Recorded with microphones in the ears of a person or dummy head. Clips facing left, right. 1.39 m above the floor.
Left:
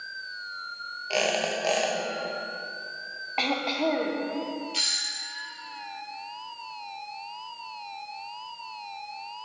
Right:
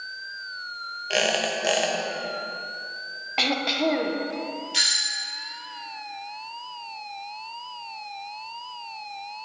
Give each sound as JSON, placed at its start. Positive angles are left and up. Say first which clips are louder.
{"t": 1.1, "sound": "a squeak", "louder": "right 1 dB", "side_deg": -15, "distance_m": 1.0}
{"t": 3.4, "sound": "throat clearing", "louder": "right 2 dB", "side_deg": -15, "distance_m": 0.7}
{"t": 4.7, "sound": "a doorbell", "louder": "right 2 dB", "side_deg": -15, "distance_m": 0.7}